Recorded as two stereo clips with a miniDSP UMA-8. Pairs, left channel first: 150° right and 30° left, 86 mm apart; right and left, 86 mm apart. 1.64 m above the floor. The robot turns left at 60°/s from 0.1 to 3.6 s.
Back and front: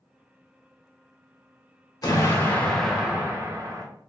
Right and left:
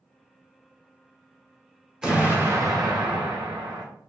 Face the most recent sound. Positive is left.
turn(degrees=80)